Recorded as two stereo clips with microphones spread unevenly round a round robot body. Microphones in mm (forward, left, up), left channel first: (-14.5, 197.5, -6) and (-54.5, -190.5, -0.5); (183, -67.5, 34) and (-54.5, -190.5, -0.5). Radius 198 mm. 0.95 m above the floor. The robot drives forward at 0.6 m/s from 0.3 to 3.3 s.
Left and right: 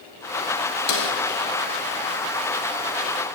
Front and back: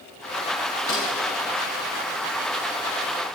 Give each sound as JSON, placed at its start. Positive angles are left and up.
{"t": 0.9, "sound": "a snare drum", "azimuth_deg": 95, "distance_m": 2.5}